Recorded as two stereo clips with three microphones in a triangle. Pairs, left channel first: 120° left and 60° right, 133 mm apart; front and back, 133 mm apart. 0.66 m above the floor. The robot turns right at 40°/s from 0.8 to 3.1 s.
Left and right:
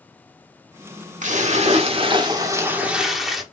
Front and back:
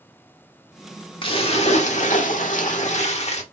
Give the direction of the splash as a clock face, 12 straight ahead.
2 o'clock.